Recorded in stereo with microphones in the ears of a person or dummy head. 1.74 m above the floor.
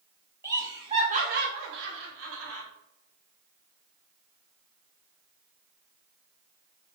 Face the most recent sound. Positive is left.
turn(degrees=-90)